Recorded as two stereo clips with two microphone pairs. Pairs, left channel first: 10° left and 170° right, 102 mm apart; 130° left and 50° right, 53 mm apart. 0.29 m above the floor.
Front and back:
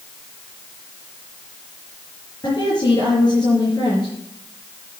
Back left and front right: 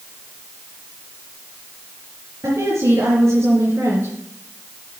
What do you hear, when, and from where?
2.4 s a woman speaking: 30° right, 5 m